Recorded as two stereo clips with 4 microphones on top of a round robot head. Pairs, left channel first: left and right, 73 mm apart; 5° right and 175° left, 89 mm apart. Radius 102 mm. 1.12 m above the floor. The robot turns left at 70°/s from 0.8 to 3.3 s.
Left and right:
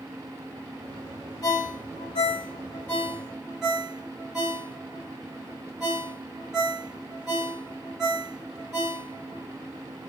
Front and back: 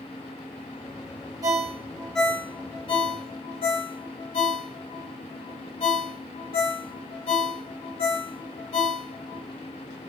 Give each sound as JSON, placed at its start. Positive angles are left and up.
{"t": 1.4, "sound": "a ringtone", "azimuth_deg": 125, "distance_m": 1.1}